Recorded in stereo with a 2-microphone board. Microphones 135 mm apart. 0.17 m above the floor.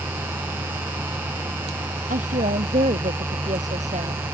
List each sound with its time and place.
2.1 s a woman speaking: 70° right (ahead or behind); by 4.2 s 55° right (ahead or behind)